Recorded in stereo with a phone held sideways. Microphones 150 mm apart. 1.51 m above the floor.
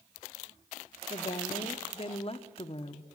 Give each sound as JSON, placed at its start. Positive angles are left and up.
{"t": 1.1, "sound": "a woman speaking", "side_deg": 40, "distance_m": 0.8}